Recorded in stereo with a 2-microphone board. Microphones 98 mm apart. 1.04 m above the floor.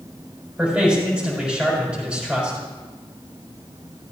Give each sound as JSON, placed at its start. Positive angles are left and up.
{"t": 0.6, "sound": "a man speaking", "side_deg": -10, "distance_m": 5.0}